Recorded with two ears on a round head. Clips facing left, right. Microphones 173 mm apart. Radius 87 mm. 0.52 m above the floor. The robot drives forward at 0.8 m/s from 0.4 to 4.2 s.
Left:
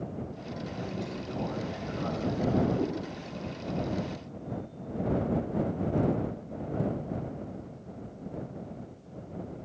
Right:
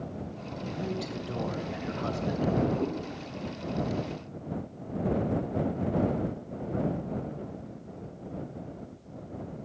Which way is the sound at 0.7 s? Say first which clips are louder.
Right 4 dB; 20° right (ahead or behind).